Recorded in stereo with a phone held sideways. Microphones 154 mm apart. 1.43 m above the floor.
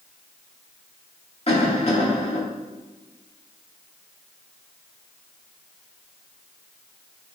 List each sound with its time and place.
1.5 s a cough: 40° left (ahead or behind), 2.5 m